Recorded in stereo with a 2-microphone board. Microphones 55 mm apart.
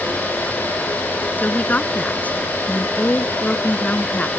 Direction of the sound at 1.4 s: 30° left (ahead or behind).